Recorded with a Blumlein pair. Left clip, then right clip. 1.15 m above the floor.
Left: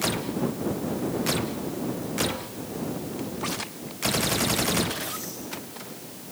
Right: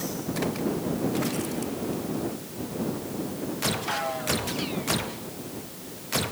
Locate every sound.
Only background noise.